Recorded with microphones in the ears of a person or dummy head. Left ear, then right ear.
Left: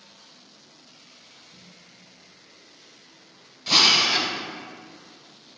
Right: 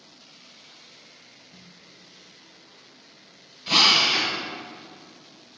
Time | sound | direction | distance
1.5 | a snare drum | 25° right (ahead or behind) | 0.6 m
3.7 | a drill | 15° left (ahead or behind) | 0.8 m